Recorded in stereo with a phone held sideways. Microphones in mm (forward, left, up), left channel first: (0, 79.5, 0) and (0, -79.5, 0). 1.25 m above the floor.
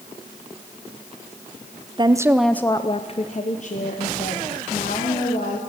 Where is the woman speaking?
30° right (ahead or behind), 0.6 m; by 5.6 s 60° left (ahead or behind), 2 m.